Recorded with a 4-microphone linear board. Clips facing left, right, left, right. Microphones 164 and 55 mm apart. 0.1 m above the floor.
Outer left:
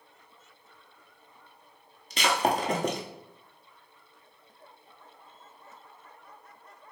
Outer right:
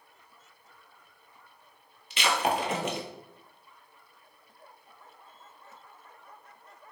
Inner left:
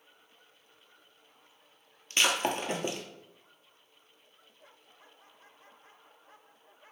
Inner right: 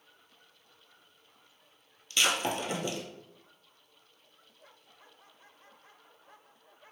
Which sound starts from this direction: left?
Breaking glass, at 2.1 s.